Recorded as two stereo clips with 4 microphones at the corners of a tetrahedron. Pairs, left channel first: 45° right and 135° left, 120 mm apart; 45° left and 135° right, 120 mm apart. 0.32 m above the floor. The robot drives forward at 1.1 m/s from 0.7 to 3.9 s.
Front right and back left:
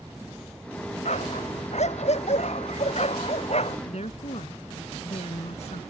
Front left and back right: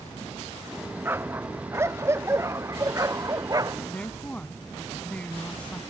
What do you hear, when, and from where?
1.1 s a dog barking: 65° right; by 3.8 s 75° right
3.9 s a woman speaking: 35° right